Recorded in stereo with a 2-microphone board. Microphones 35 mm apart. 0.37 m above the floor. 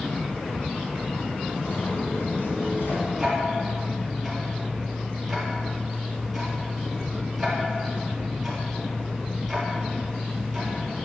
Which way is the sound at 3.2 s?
5° left (ahead or behind).